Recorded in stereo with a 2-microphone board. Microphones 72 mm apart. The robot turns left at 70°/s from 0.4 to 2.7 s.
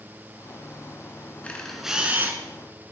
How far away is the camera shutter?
About 1.9 m.